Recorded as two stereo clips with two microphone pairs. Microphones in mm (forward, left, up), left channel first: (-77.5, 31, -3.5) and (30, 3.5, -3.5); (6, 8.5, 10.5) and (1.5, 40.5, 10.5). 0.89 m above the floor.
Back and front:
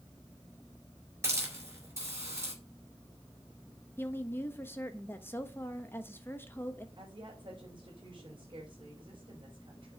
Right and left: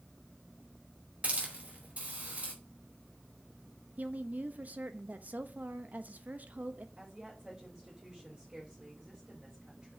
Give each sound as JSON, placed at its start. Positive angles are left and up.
{"t": 1.2, "sound": "a hiss", "azimuth_deg": 50, "distance_m": 4.0}
{"t": 4.0, "sound": "a woman speaking", "azimuth_deg": 100, "distance_m": 1.1}
{"t": 7.0, "sound": "a woman speaking", "azimuth_deg": 25, "distance_m": 4.0}